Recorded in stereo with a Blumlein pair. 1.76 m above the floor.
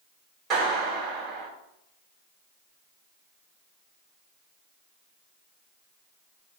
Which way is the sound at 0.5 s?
25° right.